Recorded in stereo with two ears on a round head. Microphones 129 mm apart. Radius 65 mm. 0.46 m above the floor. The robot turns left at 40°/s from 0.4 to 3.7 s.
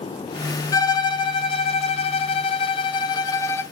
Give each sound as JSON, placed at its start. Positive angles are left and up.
{"t": 0.7, "sound": "a violin", "azimuth_deg": 140, "distance_m": 0.8}